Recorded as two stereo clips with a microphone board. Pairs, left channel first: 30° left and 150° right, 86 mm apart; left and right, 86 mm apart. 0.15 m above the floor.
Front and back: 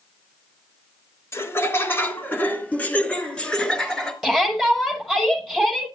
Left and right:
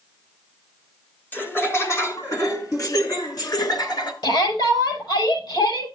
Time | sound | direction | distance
1.3 | laughter | 45° left | 1.8 m
4.2 | a shout | 120° left | 6.5 m